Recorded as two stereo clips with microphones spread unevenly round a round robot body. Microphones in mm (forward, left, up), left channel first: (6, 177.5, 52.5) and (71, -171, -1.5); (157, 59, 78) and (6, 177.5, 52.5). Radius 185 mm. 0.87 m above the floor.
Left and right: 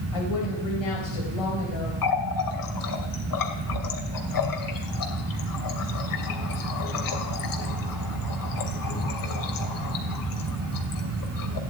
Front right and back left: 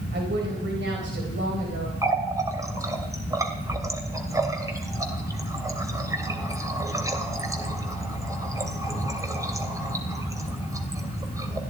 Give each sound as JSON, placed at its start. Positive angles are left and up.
{"t": 0.1, "sound": "a woman speaking", "azimuth_deg": 115, "distance_m": 4.5}
{"t": 2.0, "sound": "a running tap", "azimuth_deg": 65, "distance_m": 3.0}